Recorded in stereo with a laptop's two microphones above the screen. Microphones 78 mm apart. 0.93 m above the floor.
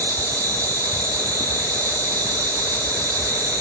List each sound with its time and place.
0.0 s an insect: 50° right (ahead or behind), 0.7 m